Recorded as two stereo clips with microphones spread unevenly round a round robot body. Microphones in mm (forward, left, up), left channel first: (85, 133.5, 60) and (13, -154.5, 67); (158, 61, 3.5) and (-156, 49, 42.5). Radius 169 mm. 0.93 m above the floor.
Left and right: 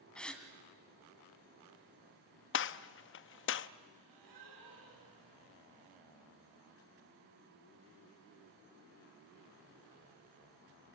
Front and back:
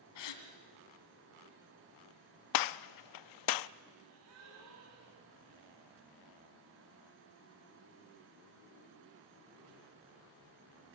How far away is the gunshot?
About 0.5 m.